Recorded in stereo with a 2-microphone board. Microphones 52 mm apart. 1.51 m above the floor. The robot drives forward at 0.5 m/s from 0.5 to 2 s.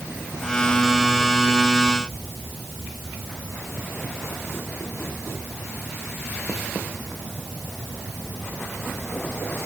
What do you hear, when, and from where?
Only background noise.